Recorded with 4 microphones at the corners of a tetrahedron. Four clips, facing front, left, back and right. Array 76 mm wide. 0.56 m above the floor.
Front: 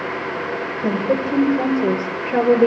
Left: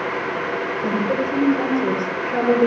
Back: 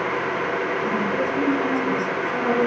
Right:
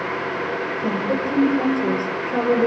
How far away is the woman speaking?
About 10 m.